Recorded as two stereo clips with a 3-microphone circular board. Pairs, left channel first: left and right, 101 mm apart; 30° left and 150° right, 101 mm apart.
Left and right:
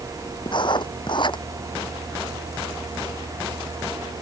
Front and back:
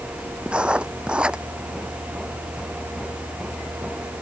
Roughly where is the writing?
Behind left.